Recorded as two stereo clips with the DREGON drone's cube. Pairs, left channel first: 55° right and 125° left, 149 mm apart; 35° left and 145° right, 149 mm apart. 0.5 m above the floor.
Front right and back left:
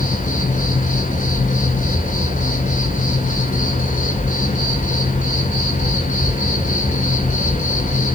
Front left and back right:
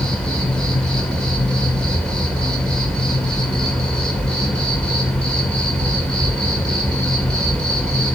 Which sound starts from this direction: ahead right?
An insect, at 0.0 s.